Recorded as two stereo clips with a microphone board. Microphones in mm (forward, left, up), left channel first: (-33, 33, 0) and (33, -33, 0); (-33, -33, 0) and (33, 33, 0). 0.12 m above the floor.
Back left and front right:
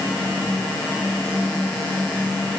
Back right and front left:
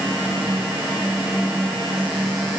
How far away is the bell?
I don't hear a bell.